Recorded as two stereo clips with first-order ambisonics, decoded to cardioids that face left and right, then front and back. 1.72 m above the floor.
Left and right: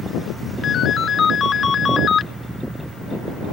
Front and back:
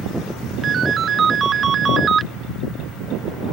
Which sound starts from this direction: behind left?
A ringtone, at 0.6 s.